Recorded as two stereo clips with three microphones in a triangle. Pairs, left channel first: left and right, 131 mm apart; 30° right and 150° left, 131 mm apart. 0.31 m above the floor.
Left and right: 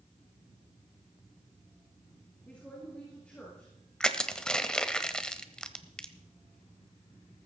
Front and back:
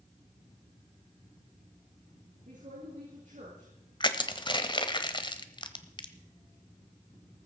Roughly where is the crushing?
Ahead.